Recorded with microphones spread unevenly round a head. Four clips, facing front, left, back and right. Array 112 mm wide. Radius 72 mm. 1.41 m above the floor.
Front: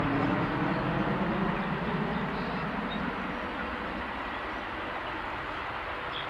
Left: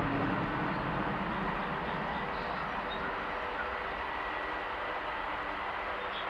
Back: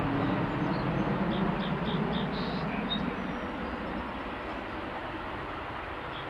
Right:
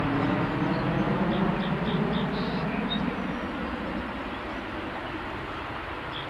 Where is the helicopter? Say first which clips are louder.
Right 6 dB, front 1 dB; 55° right; by 6.3 s 95° right.